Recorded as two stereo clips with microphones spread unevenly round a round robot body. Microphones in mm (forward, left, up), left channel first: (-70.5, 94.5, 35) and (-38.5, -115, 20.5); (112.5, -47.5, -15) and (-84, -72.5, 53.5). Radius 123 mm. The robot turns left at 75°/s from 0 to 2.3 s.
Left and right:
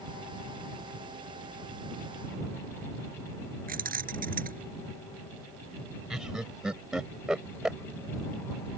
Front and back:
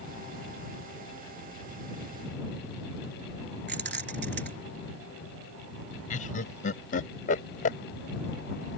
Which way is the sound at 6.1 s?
5° left.